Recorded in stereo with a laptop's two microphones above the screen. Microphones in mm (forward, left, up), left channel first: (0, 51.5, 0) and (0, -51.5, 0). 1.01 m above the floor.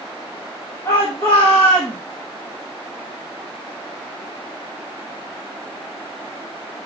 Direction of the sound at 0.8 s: 30° left (ahead or behind).